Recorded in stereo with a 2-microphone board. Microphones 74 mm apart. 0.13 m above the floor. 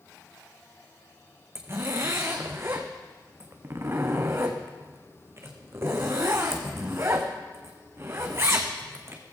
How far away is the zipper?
About 1.8 m.